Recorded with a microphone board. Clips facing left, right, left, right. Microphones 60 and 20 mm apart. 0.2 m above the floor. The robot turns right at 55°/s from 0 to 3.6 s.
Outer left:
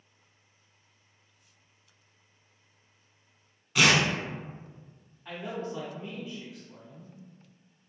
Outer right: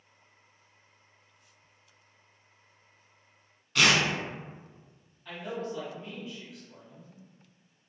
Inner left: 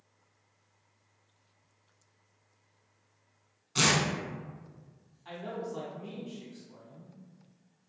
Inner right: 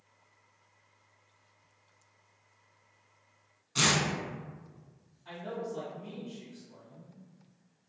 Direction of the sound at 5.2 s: 25° left (ahead or behind).